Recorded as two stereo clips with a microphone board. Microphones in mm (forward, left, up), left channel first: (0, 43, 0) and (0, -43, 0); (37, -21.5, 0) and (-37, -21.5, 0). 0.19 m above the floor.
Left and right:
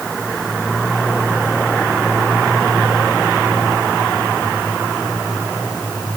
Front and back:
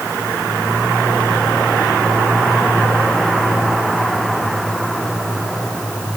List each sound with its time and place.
Only background noise.